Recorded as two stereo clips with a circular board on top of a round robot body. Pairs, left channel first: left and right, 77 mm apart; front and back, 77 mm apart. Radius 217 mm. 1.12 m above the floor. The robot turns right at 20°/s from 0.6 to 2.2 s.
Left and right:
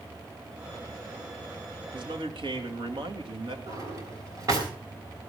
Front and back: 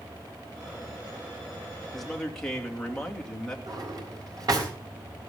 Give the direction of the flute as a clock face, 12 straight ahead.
I don't hear a flute.